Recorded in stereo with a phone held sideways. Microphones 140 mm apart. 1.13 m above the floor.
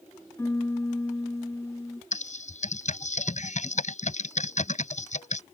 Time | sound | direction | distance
0.4 | a piano | 20° left (ahead or behind) | ?
2.1 | typing on a keyboard | 60° left (ahead or behind) | ?